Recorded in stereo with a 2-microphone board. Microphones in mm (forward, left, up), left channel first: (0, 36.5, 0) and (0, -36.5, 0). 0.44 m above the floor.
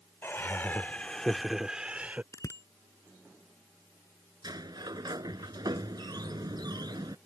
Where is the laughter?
30° left (ahead or behind); by 2.2 s 20° right (ahead or behind).